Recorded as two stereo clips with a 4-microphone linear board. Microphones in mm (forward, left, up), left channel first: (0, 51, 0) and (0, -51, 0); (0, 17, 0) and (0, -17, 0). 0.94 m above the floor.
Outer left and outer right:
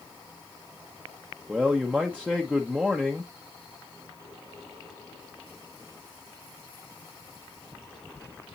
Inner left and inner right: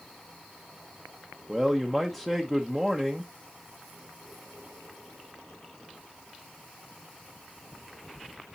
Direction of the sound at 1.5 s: 15° right (ahead or behind).